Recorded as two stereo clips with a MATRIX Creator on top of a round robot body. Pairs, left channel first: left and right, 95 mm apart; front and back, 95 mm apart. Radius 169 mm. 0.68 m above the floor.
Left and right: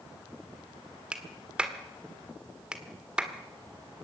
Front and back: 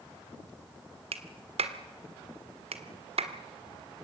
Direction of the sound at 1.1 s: 170° right.